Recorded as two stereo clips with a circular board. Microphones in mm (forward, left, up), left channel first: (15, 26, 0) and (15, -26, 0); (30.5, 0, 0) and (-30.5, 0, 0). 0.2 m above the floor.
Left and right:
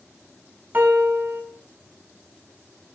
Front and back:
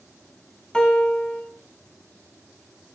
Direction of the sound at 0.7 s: 65° right.